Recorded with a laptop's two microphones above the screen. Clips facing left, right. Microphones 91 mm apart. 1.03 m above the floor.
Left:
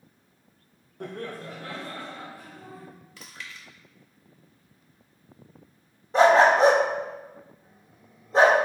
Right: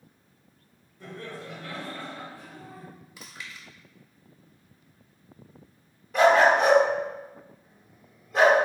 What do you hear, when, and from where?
1.0 s laughter: 60° left (ahead or behind), 0.7 m; by 2.9 s 5° left (ahead or behind), 2.5 m
3.2 s chewing: 10° right (ahead or behind), 1.1 m
6.1 s a dog barking: 30° left (ahead or behind), 0.7 m